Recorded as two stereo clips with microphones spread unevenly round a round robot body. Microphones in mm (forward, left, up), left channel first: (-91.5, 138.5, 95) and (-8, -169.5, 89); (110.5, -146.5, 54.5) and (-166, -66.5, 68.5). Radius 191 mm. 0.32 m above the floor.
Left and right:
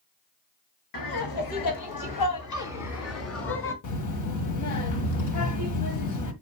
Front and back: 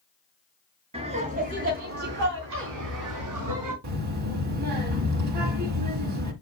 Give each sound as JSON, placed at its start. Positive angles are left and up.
{"t": 0.9, "sound": "laughter", "azimuth_deg": 90, "distance_m": 3.5}
{"t": 3.8, "sound": "a child speaking", "azimuth_deg": 130, "distance_m": 1.6}